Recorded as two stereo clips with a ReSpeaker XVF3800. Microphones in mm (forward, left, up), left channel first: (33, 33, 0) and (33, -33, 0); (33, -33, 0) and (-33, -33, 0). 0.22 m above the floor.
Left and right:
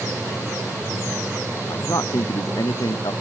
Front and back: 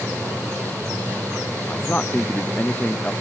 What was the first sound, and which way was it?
A man speaking, 65° left.